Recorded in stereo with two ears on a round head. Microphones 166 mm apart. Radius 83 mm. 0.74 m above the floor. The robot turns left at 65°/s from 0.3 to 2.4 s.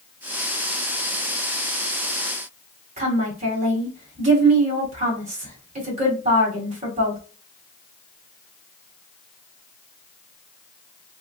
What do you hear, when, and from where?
3.0 s a woman speaking: 40° right (ahead or behind), 1.9 m